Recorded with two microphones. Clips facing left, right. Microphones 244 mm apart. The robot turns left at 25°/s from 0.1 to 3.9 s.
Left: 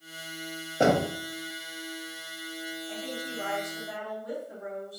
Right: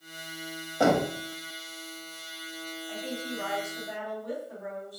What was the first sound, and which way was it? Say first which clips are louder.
Knocking: even; 25° left (ahead or behind).